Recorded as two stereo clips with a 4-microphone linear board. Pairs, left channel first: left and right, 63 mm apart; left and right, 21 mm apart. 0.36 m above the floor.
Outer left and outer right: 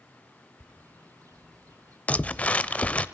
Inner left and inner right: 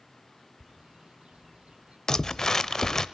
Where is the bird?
65° right (ahead or behind), 2 m.